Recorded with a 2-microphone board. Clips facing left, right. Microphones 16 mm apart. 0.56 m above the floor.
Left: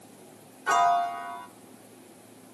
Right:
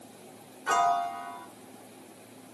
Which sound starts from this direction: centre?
A piano, at 0.7 s.